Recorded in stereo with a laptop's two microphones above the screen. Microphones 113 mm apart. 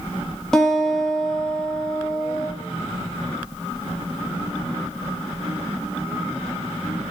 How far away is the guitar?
About 1.6 m.